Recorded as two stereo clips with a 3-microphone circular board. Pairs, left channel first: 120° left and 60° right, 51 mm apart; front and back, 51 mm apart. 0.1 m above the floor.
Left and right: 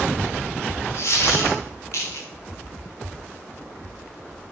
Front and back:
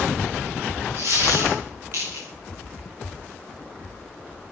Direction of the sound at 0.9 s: 145° left.